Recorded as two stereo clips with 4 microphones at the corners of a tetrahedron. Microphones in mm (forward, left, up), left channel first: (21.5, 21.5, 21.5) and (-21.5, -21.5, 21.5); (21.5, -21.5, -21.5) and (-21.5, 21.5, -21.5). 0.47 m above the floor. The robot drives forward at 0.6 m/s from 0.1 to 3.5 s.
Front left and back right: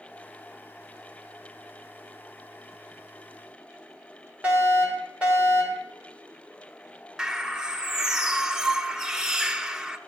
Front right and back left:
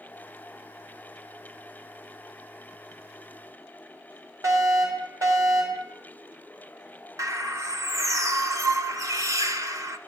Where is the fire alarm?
155° left, 4 m.